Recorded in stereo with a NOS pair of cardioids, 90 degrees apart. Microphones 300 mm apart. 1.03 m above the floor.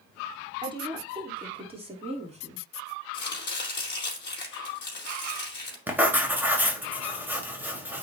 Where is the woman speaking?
15° right, 3.5 m; by 2.6 s 25° right, 2.5 m.